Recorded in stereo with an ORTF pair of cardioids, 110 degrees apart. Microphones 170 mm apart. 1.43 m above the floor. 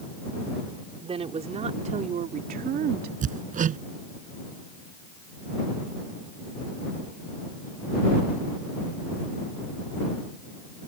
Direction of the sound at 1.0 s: 35° right.